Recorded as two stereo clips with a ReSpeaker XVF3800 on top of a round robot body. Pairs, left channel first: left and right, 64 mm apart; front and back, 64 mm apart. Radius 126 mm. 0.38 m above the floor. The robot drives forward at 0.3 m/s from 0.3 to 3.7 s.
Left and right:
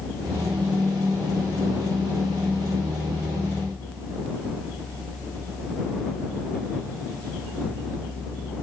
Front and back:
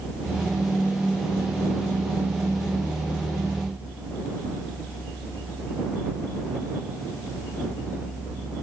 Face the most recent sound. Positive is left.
No sound to turn to.